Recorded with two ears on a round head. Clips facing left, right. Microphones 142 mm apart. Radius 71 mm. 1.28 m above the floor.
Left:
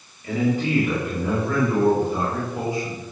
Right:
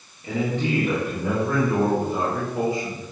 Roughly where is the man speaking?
Right.